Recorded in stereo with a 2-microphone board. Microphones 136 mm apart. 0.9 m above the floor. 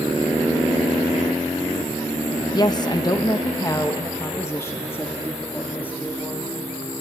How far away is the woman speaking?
About 0.9 m.